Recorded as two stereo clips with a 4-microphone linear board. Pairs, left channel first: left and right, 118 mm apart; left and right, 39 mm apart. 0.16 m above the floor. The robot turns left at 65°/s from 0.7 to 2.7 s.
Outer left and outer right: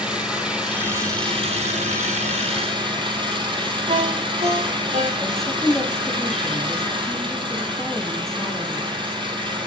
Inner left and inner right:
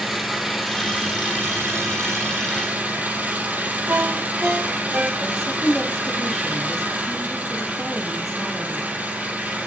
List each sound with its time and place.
0.0 s an engine running: 5° right, 4.5 m; by 9.7 s 135° right, 4.5 m
3.9 s a ringtone: 70° right (ahead or behind), 9 m
5.2 s a woman speaking: 5° left (ahead or behind), 5 m